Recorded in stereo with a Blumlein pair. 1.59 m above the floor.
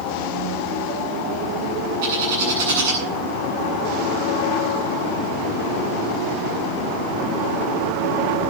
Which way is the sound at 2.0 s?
50° right.